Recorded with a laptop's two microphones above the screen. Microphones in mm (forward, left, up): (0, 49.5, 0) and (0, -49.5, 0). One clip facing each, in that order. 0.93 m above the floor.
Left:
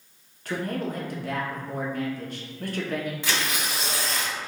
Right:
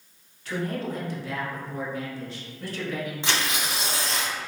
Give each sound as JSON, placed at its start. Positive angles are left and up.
{"t": 0.5, "sound": "a man speaking", "side_deg": 50, "distance_m": 1.0}
{"t": 3.2, "sound": "tearing paper", "side_deg": -25, "distance_m": 1.0}